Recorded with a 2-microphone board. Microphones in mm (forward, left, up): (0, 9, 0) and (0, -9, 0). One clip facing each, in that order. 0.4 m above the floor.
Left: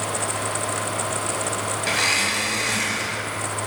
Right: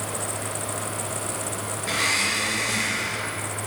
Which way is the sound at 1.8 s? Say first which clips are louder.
Left 2 dB; 50° left (ahead or behind).